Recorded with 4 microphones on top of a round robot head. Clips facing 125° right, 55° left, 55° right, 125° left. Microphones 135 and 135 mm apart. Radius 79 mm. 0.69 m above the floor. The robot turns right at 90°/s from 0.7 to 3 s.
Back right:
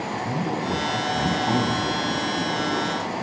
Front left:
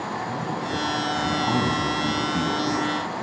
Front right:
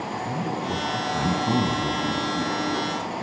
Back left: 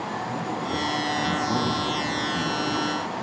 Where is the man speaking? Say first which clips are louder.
Back right 2 dB, front right 2 dB; 110° right, 8 m; by 2.9 s 85° left, 8 m.